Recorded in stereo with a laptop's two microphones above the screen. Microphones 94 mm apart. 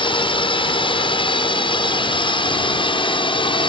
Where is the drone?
60° left (ahead or behind).